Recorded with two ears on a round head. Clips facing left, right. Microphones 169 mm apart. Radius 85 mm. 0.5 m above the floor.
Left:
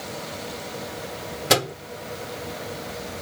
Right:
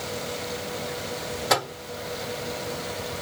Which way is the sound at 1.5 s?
35° left (ahead or behind).